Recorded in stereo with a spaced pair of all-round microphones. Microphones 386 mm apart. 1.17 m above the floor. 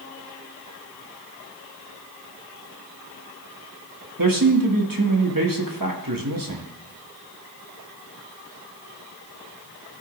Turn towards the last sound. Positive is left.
turn(degrees=-60)  # may be behind; listen again after turning